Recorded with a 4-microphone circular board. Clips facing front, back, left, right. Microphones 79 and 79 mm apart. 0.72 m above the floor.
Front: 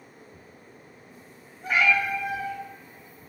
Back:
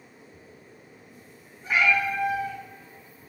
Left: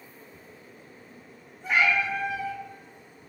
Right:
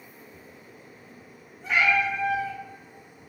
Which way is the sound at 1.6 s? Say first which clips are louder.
Even, right 1 dB; 10° left.